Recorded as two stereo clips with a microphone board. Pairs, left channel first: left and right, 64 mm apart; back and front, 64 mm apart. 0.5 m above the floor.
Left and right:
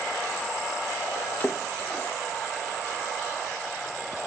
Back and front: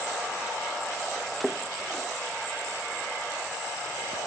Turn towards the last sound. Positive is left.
turn(degrees=90)